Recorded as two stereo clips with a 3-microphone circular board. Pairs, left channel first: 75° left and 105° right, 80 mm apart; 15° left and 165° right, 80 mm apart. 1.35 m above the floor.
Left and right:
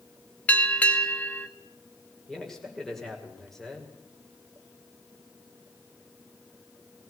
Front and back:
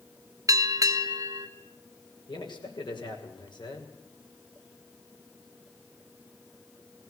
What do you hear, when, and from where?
0.5 s a bell: 150° left, 1.7 m
2.3 s a man speaking: 10° right, 6 m